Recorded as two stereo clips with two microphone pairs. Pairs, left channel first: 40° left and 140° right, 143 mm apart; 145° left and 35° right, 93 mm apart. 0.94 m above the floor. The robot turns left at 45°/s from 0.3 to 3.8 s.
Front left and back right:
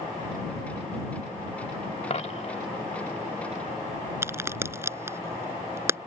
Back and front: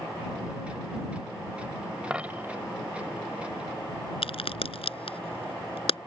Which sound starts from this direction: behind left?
A crack, at 4.2 s.